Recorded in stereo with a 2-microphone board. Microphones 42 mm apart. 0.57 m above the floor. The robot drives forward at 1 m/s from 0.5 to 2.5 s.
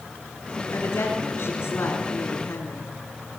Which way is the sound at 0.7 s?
60° left (ahead or behind).